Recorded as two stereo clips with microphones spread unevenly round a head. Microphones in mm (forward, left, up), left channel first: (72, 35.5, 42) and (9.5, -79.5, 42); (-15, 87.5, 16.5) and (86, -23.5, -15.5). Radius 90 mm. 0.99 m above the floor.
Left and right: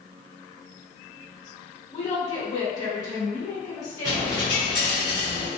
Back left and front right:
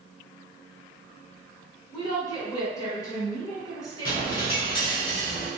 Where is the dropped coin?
120° left, 1.0 m.